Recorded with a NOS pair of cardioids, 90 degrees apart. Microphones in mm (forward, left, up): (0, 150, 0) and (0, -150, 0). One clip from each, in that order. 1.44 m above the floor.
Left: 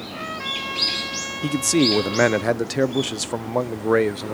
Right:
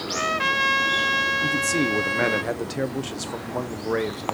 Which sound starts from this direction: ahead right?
A trumpet, at 0.1 s.